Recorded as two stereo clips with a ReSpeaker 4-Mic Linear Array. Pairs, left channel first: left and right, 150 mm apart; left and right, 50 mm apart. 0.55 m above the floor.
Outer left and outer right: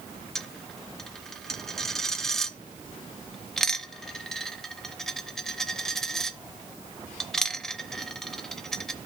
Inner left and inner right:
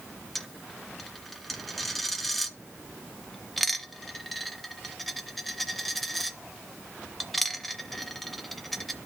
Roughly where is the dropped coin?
Centre.